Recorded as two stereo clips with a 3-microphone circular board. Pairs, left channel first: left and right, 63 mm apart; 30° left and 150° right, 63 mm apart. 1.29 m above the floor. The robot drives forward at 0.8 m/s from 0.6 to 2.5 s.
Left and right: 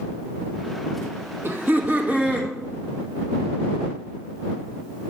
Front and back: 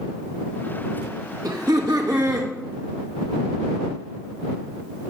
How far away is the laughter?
About 1.1 m.